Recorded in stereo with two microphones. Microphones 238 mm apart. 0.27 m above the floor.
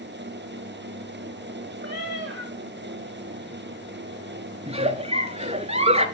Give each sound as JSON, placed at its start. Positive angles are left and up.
{"t": 1.8, "sound": "a cat meowing", "side_deg": -45, "distance_m": 2.5}
{"t": 4.7, "sound": "a giggle", "side_deg": -25, "distance_m": 0.9}